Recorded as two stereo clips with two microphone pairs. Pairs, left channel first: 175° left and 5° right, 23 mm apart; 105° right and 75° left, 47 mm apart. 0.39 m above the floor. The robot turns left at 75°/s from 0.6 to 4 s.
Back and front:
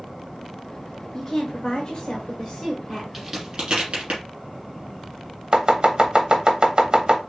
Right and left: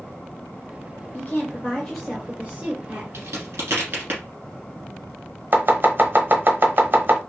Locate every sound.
1.1 s a woman speaking: 130° right, 1.1 m; by 3.0 s 85° left, 1.1 m
3.1 s a crack: 85° left, 3 m; by 4.2 s 20° left, 3 m
5.5 s chopping: 35° left, 0.9 m